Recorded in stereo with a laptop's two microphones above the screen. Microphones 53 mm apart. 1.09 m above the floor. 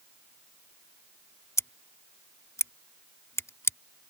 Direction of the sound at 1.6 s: 80° left.